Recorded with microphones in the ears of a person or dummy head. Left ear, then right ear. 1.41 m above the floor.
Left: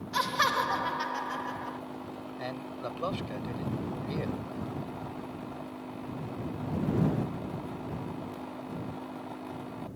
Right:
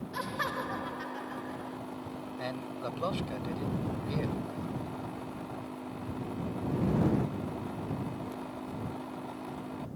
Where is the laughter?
30° left (ahead or behind).